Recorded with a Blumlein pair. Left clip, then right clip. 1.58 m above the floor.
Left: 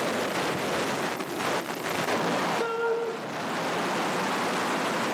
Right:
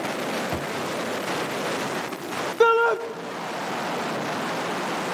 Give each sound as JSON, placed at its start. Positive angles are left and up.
{"t": 0.5, "sound": "a thud", "azimuth_deg": -50, "distance_m": 3.5}
{"t": 2.6, "sound": "a shout", "azimuth_deg": -55, "distance_m": 2.0}